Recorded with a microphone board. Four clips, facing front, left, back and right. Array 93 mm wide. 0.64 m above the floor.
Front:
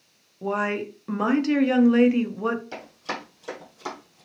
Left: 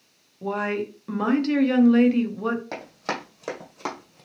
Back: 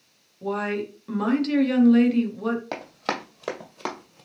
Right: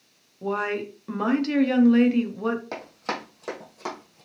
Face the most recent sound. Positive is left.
turn(degrees=150)